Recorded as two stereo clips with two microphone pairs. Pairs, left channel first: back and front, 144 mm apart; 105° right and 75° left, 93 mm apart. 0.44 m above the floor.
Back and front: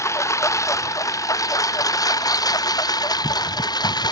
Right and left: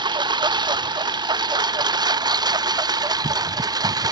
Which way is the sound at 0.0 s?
110° left.